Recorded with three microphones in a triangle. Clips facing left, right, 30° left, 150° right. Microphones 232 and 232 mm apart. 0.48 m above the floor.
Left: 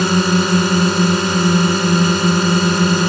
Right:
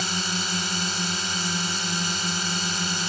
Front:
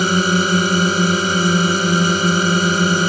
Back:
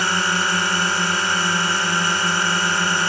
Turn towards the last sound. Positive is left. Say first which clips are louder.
# left 17 dB, front 10 dB
turn(degrees=75)